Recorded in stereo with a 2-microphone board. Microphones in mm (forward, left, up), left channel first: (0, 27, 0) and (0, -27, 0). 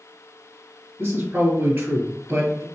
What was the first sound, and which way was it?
A man speaking, 35° right (ahead or behind).